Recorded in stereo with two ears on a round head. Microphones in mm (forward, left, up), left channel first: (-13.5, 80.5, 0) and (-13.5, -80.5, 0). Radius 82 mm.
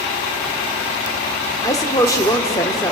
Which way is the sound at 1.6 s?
20° left (ahead or behind).